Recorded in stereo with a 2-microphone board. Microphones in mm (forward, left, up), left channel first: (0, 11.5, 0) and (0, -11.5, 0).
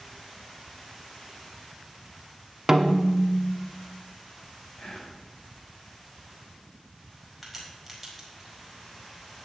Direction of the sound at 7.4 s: Centre (ahead or behind).